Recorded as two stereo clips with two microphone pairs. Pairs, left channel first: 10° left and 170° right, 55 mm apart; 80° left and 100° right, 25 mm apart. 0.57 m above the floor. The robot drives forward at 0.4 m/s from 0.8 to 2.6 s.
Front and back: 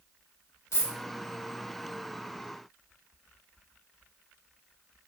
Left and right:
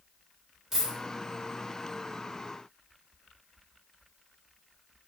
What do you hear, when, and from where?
0.7 s a dropped coin: 25° right, 1.2 m